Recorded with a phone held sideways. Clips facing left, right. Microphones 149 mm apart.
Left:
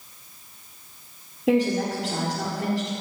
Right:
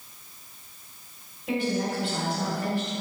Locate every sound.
1.5 s a woman speaking: 80° left, 1.7 m